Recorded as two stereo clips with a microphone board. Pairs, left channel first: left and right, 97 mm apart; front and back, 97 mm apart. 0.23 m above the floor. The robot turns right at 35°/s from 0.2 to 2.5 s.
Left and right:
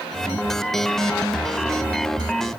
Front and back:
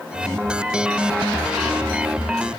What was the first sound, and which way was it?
Only background noise.